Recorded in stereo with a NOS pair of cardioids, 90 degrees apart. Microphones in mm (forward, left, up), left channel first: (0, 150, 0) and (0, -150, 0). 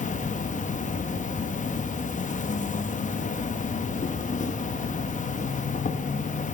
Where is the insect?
25° left, 0.9 m.